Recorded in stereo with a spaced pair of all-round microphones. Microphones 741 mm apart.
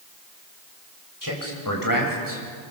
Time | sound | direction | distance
1.2 | a man speaking | 25° left (ahead or behind) | 6.5 m